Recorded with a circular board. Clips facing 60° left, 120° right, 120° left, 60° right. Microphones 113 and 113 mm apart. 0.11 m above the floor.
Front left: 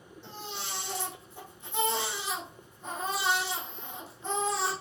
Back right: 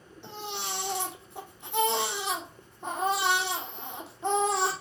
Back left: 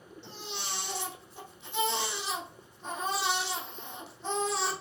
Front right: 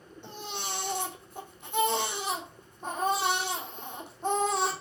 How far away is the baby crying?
About 3 m.